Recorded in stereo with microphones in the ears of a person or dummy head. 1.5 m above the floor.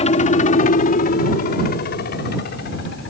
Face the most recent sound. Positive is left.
turn(degrees=60)  # may be behind; listen again after turning